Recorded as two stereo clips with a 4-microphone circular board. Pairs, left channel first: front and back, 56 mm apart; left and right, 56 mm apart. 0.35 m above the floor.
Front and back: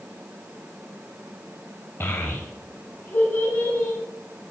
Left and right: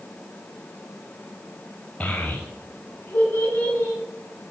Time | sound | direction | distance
2.0 | a child speaking | 35° left | 0.8 m